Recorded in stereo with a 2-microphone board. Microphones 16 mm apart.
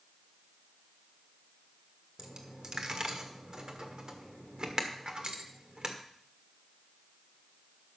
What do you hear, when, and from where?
2.2 s a dropped coin: 40° right (ahead or behind), 1.4 m